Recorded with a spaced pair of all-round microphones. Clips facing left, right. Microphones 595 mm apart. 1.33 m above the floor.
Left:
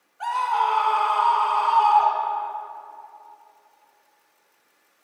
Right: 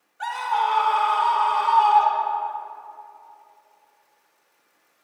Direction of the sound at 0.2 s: 50° right (ahead or behind).